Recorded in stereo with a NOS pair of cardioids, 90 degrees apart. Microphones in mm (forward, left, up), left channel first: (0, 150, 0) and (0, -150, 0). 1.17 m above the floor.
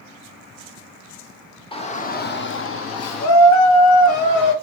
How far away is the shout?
About 1.2 m.